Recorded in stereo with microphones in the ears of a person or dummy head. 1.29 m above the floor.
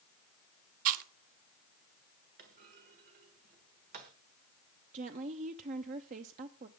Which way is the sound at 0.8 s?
45° right (ahead or behind).